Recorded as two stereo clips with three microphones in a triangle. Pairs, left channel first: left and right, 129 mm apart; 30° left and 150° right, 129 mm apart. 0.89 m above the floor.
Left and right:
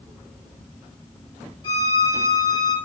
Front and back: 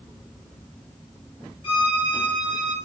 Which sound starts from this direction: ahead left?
A violin, at 1.6 s.